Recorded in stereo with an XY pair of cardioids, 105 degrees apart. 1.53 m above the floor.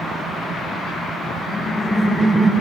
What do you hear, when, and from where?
1.4 s laughter: 45° left, 1.1 m; by 2.5 s 5° right, 1.2 m